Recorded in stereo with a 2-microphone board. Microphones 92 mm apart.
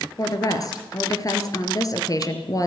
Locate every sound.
0.2 s a woman speaking: 40° left (ahead or behind), 3 m